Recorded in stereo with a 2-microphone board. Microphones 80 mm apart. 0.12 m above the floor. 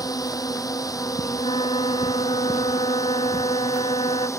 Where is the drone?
50° left (ahead or behind); by 4.4 s 35° left (ahead or behind).